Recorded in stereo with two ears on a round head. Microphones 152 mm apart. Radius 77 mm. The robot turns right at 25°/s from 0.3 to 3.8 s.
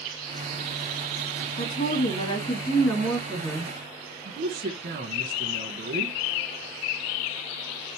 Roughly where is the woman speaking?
Behind left.